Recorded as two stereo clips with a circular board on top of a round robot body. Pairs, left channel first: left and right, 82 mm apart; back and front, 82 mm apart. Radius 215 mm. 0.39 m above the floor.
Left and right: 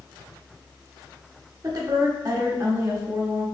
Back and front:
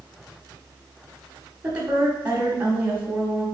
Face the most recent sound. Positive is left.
turn(degrees=-55)